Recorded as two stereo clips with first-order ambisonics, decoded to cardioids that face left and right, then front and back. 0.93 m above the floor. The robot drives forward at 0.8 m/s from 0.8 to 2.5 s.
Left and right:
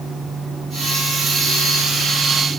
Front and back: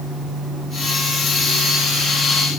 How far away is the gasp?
No gasp in this recording.